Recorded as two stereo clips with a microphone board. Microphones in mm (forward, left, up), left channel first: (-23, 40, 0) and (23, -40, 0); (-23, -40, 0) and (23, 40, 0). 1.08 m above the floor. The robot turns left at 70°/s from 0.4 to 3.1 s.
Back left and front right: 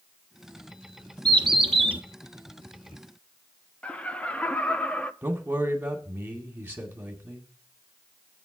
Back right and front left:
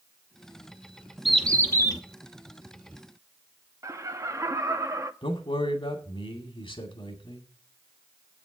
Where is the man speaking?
130° right, 2.5 m.